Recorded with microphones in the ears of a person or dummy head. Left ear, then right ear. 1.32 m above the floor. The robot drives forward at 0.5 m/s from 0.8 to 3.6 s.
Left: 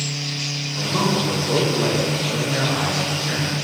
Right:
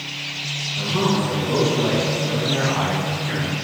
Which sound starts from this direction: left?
A man speaking, at 0.8 s.